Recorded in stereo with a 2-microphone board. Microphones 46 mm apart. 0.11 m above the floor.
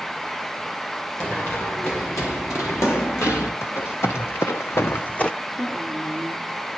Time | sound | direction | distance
1.2 | running footsteps | 60° left (ahead or behind) | 3.5 m
3.6 | running footsteps | 70° left (ahead or behind) | 1.5 m
5.6 | a woman speaking | 60° left (ahead or behind) | 5 m